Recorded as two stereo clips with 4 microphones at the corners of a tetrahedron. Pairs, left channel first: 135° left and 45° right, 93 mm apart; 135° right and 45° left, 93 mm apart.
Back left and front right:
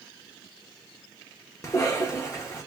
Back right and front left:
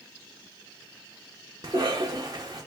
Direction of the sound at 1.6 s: 80° left.